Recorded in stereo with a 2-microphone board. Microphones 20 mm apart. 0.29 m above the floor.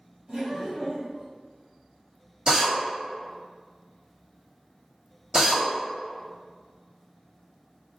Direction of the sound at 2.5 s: 40° right (ahead or behind).